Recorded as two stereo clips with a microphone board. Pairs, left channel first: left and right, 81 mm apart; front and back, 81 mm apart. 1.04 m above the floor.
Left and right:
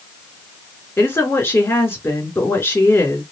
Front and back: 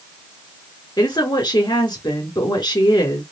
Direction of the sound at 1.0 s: 35° left.